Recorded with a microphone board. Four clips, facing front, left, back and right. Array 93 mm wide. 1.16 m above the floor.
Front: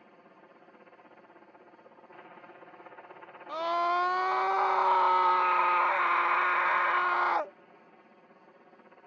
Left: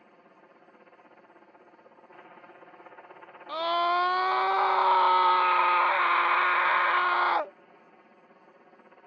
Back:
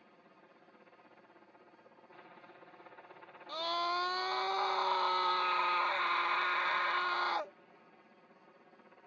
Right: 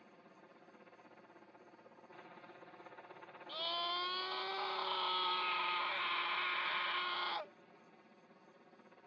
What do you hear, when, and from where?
0.0 s a helicopter: 45° left; by 9.1 s 60° left
3.5 s a scream: 65° left